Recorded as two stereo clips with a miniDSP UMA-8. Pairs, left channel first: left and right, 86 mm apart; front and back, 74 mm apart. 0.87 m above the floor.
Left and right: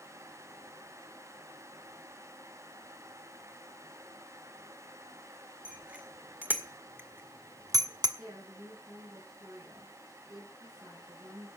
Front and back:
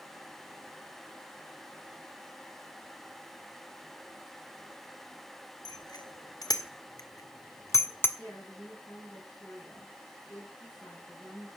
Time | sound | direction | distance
5.7 | a bicycle bell | 15° right | 2 m
8.2 | a woman speaking | 60° right | 9 m